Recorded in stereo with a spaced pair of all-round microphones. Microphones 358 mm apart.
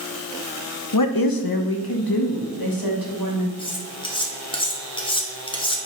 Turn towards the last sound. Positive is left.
turn(degrees=15)  # may be behind; listen again after turning